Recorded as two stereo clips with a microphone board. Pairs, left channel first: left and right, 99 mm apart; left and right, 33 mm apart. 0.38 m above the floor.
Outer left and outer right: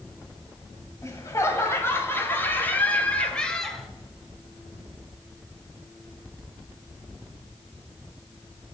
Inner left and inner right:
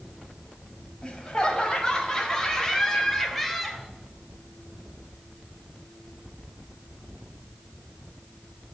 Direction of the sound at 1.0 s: 30° left (ahead or behind).